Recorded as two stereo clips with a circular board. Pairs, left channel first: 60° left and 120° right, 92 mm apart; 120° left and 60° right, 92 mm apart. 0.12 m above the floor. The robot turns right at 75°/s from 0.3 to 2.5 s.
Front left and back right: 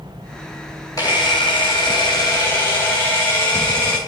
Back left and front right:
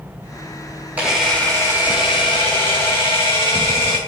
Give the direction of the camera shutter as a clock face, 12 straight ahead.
12 o'clock.